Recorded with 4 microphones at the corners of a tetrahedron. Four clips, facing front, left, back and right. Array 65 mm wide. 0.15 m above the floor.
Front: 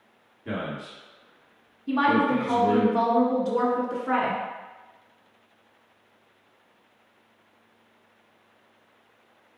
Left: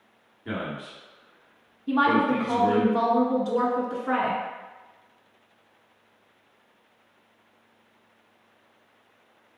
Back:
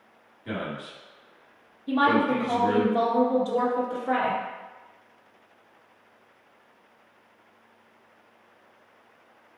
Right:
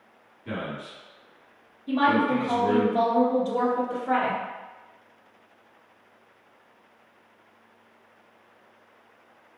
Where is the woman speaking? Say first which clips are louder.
Left 1 dB, even; 50° left, 1.3 m.